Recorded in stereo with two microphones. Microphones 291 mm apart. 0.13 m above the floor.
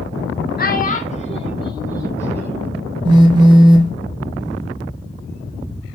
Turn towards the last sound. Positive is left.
turn(degrees=-15)  # may be behind; listen again after turning